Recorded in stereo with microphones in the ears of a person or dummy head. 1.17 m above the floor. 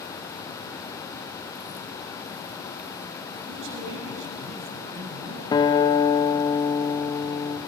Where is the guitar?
20° left (ahead or behind), 1.3 m.